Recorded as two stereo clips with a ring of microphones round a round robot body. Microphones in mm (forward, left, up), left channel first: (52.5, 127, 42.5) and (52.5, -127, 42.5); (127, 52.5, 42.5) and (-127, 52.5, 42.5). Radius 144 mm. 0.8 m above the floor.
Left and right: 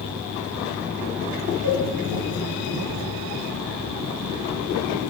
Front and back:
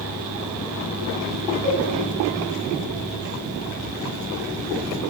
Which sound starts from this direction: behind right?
A cowbell, at 1.6 s.